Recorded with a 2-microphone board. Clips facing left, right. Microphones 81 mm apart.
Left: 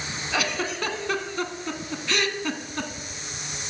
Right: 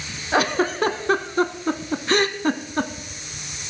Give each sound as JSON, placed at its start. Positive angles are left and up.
{"t": 0.3, "sound": "a giggle", "side_deg": -40, "distance_m": 0.7}